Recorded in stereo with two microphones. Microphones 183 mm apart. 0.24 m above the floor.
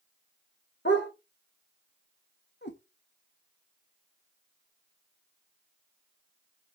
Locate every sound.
0.8 s a dog barking: 75° left (ahead or behind), 3 m
2.6 s a cat meowing: 70° left (ahead or behind), 1.8 m